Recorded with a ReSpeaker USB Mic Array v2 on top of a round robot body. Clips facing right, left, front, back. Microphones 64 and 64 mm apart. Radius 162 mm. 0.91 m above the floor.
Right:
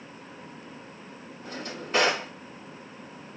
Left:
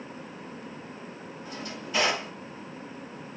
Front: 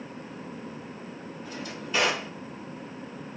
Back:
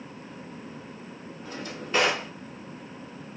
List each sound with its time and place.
1.4 s a drawer: 135° right, 1.2 m